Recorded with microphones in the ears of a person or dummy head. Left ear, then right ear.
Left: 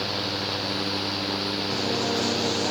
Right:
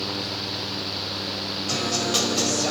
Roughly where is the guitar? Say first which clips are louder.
Right 5 dB; right.